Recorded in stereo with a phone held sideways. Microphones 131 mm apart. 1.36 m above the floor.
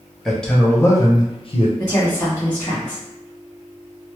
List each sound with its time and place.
0.2 s a man speaking: centre (ahead or behind), 0.9 m; by 1.7 s 55° left (ahead or behind), 0.8 m
1.8 s a woman speaking: 30° left (ahead or behind), 1.4 m